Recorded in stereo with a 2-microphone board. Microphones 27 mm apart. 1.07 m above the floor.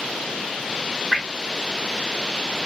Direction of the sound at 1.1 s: 20° left (ahead or behind).